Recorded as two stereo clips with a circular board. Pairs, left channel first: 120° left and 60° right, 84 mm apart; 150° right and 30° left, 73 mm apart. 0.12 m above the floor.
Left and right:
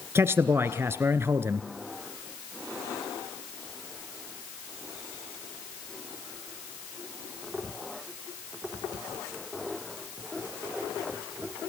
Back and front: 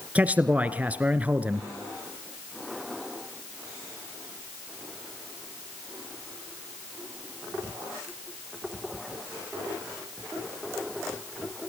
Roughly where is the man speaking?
Ahead right.